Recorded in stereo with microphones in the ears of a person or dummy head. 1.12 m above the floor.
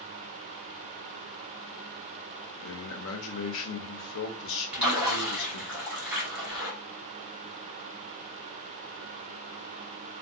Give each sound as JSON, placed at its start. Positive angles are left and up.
{"t": 2.6, "sound": "a man speaking", "side_deg": 65, "distance_m": 0.7}
{"t": 4.7, "sound": "a splash", "side_deg": -10, "distance_m": 0.8}